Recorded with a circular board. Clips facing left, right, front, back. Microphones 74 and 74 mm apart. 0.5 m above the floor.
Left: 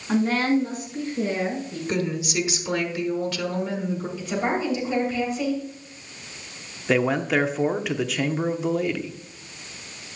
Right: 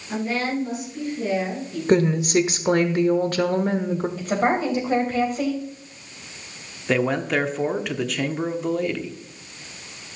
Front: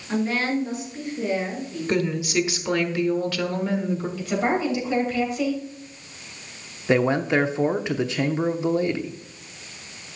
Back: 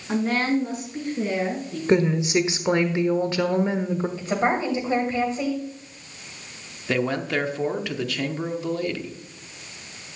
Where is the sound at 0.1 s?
130° left, 5 m; by 1.8 s 145° left, 7 m.